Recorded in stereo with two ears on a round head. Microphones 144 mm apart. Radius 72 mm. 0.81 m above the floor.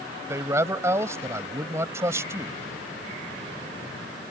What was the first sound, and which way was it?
A man speaking, 20° right (ahead or behind).